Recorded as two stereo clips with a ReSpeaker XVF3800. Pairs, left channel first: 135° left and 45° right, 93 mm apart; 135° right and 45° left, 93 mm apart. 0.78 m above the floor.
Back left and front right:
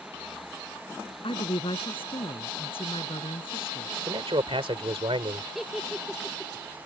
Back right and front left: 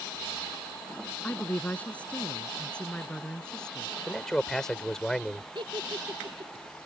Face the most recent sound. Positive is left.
turn(degrees=40)